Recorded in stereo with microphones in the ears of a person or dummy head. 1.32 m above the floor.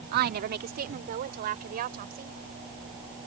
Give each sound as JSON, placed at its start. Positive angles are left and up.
{"t": 0.1, "sound": "a woman speaking", "side_deg": -45}